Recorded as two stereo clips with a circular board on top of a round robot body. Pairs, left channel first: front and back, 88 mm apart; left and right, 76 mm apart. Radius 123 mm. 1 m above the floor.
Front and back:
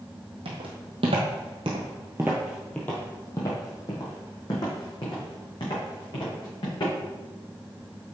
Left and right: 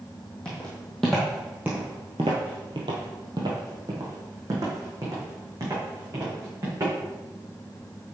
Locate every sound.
0.5 s footsteps: 170° left, 2 m; by 6.9 s 35° right, 5 m